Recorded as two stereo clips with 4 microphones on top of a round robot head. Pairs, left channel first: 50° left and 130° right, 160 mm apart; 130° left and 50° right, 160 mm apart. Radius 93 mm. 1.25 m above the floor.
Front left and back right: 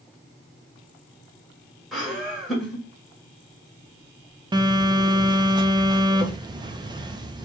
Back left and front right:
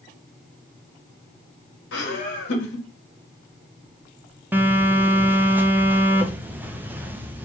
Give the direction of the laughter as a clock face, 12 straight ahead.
7 o'clock.